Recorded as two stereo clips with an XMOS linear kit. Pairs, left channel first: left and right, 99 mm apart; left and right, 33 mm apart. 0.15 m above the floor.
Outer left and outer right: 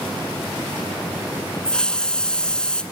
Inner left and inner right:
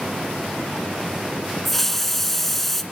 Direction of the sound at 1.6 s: 10° left (ahead or behind).